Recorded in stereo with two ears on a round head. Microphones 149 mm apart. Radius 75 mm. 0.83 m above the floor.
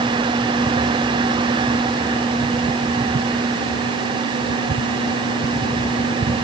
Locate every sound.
Only background noise.